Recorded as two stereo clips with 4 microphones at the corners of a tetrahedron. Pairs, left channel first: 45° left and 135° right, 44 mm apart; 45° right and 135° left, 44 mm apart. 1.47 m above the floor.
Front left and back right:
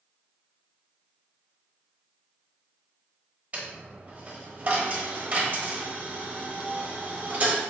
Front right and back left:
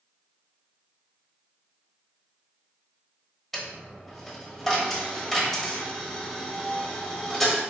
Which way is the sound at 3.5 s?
125° right.